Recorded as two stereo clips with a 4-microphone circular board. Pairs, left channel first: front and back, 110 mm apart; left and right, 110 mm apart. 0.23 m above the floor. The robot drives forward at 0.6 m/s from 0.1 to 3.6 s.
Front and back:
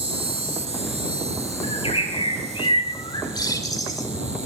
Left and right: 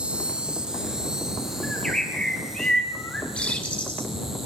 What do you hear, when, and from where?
0.0 s an insect: 170° right, 0.9 m; by 4.5 s 175° right, 3 m
1.6 s a bird: 10° left, 2.5 m; by 4.1 s 20° left, 1.5 m